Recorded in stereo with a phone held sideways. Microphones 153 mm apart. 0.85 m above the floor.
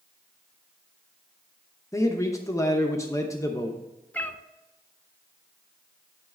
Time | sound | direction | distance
1.9 | a man speaking | 20° left (ahead or behind) | 0.8 m
4.1 | a cat meowing | 10° left (ahead or behind) | 0.5 m